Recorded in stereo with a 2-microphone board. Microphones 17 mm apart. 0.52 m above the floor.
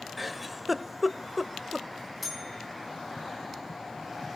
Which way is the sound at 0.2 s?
10° right (ahead or behind).